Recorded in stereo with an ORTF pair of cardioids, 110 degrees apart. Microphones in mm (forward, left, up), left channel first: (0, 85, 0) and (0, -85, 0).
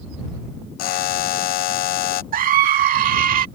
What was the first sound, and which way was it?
A buzzer, 60° left.